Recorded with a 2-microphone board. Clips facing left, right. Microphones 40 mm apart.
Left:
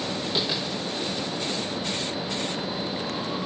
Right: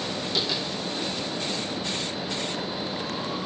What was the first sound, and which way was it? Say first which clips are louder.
Tapping: even; 25° left (ahead or behind).